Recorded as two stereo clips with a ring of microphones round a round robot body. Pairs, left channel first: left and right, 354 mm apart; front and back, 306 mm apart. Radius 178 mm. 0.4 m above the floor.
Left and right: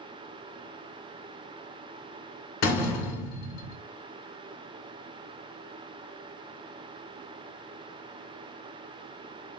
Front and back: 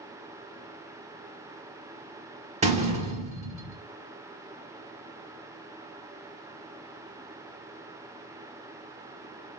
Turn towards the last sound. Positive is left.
turn(degrees=120)